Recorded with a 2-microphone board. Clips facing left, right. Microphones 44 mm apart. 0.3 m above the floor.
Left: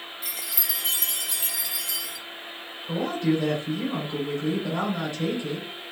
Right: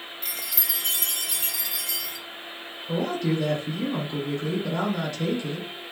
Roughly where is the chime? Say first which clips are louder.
Right 1 dB; centre.